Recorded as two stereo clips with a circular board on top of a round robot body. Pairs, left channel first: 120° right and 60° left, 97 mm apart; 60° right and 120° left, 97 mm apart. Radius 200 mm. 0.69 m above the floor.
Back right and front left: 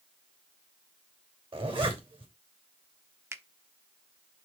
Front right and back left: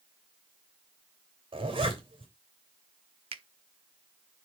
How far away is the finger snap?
About 0.9 m.